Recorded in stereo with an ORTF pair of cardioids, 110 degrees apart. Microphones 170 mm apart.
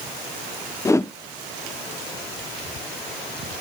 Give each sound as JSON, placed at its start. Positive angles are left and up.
{"t": 0.8, "sound": "a whoosh", "azimuth_deg": 15, "distance_m": 0.6}